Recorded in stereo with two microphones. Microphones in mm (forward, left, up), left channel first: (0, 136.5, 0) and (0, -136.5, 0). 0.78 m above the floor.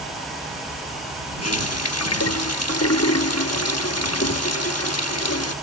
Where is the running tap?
65° left (ahead or behind).